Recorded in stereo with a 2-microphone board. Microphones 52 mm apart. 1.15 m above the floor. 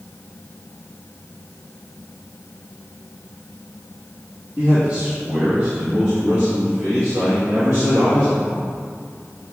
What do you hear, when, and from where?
4.6 s a man speaking: 30° right (ahead or behind), 2.5 m; by 8.7 s 75° right (ahead or behind), 2.5 m